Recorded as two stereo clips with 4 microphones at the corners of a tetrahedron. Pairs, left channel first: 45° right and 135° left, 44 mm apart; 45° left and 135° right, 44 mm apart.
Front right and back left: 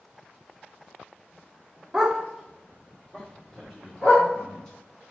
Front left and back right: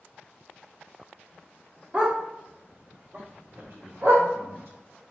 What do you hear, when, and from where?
1.9 s a dog barking: 160° right, 0.7 m; by 4.3 s 100° right, 1.6 m
3.5 s a man speaking: 115° right, 1.0 m